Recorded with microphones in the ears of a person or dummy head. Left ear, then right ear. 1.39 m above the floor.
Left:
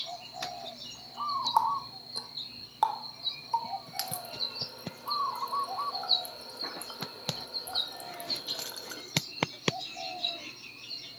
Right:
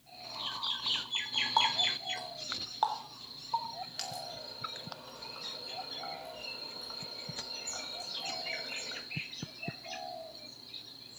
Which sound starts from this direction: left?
A running tap, at 1.6 s.